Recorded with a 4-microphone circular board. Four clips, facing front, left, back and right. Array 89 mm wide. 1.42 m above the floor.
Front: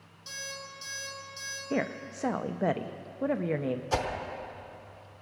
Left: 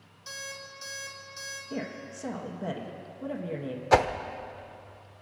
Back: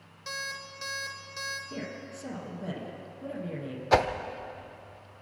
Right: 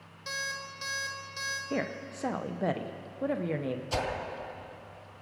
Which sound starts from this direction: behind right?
An alarm clock, at 0.3 s.